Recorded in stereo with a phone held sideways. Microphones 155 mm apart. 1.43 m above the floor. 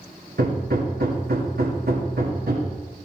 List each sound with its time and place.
0.4 s hammering: 75° right (ahead or behind), 2 m